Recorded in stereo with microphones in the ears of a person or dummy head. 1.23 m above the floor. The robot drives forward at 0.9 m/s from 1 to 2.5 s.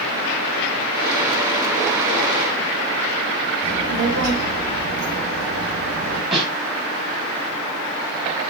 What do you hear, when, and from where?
3.6 s a child speaking: 55° right (ahead or behind), 3 m
6.3 s a snare drum: centre (ahead or behind), 3 m